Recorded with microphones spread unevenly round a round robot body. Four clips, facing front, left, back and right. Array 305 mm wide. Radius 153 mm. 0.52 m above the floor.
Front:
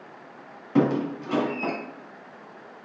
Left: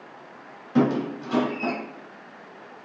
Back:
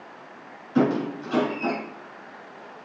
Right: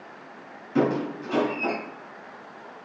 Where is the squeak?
25° left, 1.8 m.